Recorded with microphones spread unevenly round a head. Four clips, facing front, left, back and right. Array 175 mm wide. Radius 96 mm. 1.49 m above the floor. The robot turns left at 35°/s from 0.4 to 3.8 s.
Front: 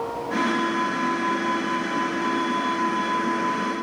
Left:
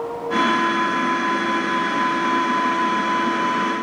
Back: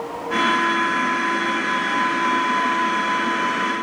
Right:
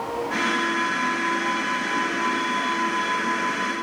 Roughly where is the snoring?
No snoring in this recording.